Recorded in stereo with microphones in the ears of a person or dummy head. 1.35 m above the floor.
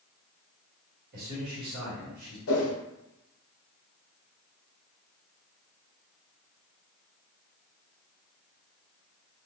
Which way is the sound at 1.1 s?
45° right (ahead or behind).